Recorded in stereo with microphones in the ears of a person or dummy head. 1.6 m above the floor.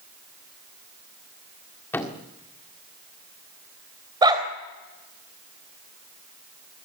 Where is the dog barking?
20° right (ahead or behind), 3.5 m.